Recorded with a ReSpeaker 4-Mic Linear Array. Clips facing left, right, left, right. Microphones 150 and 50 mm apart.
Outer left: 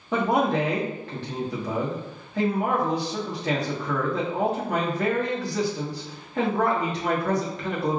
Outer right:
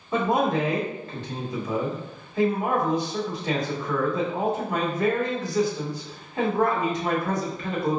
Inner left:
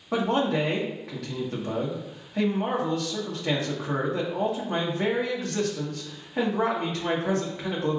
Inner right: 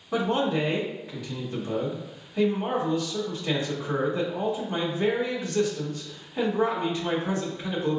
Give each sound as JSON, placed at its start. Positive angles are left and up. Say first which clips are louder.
{"t": 0.1, "sound": "a man speaking", "louder": "even, inner left 1 dB", "side_deg": 75, "distance_m": 1.6}